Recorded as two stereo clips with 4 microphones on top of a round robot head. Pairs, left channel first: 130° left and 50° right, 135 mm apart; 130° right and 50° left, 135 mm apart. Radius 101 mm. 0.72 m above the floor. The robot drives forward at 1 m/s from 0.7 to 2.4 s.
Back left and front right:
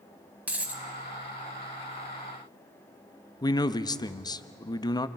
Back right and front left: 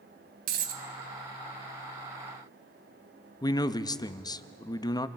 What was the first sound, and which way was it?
A dropped coin, 30° left.